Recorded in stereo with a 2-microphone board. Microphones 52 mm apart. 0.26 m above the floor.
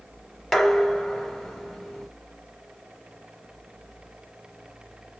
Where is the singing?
I don't hear singing.